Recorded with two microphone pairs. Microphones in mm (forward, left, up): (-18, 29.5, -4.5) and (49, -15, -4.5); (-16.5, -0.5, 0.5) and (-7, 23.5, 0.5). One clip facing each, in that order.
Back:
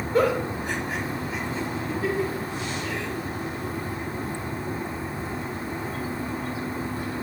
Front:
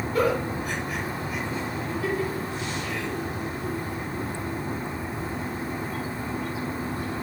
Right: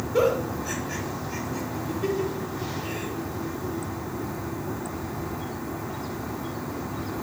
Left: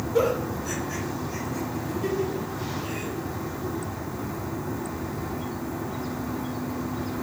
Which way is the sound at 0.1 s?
175° left.